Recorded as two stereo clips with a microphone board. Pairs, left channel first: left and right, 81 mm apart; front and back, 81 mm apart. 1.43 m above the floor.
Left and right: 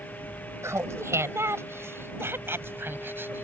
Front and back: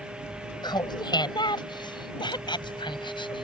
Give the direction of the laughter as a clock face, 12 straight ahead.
1 o'clock.